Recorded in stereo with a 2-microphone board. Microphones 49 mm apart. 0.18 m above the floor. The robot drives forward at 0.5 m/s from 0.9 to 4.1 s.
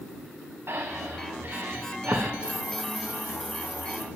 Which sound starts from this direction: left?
A hiss, at 2.4 s.